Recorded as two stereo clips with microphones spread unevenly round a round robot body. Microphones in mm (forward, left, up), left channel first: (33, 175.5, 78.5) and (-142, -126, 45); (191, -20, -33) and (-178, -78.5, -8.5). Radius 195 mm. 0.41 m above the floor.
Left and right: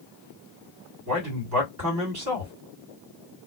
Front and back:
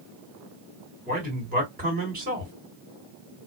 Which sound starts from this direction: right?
A man speaking, at 1.1 s.